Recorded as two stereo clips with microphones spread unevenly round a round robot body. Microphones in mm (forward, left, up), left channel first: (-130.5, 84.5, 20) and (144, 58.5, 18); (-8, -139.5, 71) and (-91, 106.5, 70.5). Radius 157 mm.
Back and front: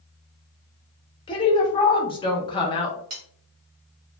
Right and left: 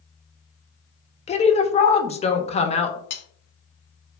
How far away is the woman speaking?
About 0.6 m.